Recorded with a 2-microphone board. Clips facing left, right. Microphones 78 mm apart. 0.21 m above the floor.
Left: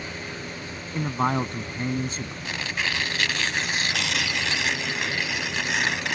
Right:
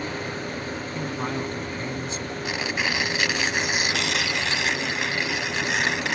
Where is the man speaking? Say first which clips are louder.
Left 6 dB; 45° left (ahead or behind).